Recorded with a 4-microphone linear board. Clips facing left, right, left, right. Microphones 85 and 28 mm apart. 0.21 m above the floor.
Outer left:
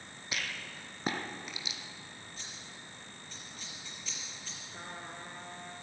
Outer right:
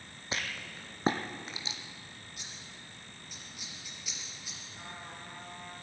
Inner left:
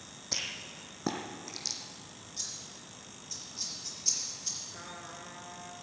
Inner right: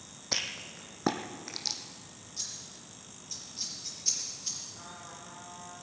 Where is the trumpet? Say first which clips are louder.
Outer left 2 dB, inner left 2 dB; 50° left (ahead or behind), 1.9 m.